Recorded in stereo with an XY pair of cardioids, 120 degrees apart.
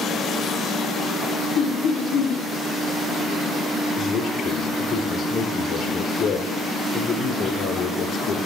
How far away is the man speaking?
About 4.5 m.